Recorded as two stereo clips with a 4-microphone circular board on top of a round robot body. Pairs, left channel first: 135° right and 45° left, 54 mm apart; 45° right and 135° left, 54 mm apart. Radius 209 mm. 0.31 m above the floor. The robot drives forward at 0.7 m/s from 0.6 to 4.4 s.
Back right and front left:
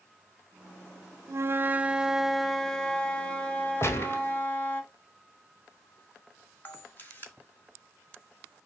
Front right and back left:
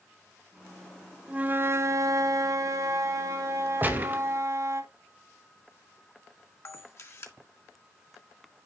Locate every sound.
1.3 s a flute: 70° left, 0.7 m; by 4.8 s 165° left, 2 m
3.8 s a gunshot: 170° right, 1.5 m
6.7 s a camera shutter: 80° right, 1.9 m